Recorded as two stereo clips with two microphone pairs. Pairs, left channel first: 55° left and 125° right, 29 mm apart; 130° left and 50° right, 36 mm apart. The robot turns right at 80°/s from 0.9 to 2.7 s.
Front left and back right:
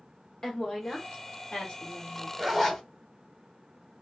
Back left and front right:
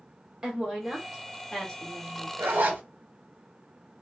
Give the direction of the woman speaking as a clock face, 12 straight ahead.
12 o'clock.